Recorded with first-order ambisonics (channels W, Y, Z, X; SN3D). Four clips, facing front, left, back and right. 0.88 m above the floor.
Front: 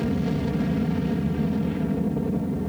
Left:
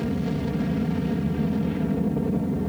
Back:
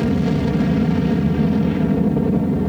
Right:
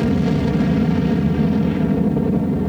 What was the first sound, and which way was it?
An aircraft, 125° right.